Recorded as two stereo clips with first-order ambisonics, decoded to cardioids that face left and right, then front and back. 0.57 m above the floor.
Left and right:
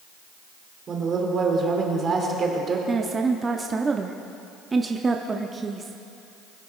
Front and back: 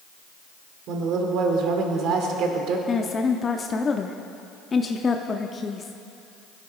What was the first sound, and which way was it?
A woman speaking, 150° right.